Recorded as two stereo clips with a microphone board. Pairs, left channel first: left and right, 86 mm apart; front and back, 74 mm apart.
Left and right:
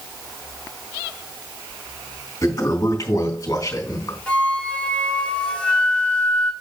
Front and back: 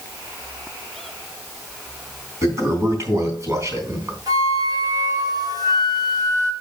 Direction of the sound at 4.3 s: 165° left.